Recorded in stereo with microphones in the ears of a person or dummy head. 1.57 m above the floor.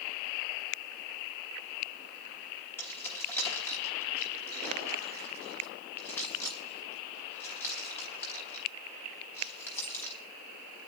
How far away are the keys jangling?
About 4.5 m.